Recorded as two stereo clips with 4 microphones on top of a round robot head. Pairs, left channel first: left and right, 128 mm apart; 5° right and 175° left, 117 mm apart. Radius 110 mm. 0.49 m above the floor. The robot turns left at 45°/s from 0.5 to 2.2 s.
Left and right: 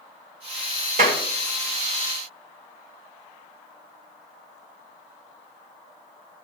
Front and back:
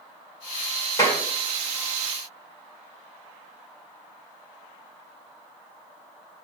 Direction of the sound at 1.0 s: 65° right.